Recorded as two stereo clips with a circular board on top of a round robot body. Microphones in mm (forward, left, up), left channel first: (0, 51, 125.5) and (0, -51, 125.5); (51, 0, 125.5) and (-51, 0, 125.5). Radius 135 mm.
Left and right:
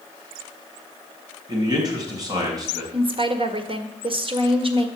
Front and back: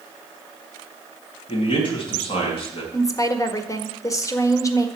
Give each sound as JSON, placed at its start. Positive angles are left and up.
{"t": 1.5, "sound": "a man speaking", "azimuth_deg": -35, "distance_m": 4.0}
{"t": 2.9, "sound": "a woman speaking", "azimuth_deg": -55, "distance_m": 1.8}